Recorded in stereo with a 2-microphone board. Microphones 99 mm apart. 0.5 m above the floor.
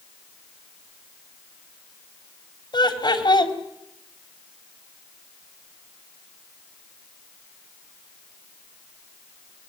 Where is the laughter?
50° left (ahead or behind), 3 m.